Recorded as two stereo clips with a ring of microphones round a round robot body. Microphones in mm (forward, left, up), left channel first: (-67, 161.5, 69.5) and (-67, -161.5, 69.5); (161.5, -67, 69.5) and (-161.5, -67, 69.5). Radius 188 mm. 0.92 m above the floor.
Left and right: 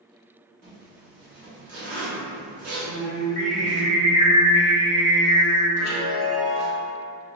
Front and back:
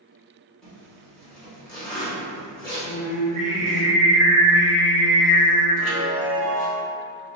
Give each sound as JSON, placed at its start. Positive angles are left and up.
{"t": 0.6, "sound": "a zipper", "azimuth_deg": -85, "distance_m": 1.2}
{"t": 2.8, "sound": "singing", "azimuth_deg": 140, "distance_m": 1.5}
{"t": 5.8, "sound": "a chime", "azimuth_deg": 95, "distance_m": 1.9}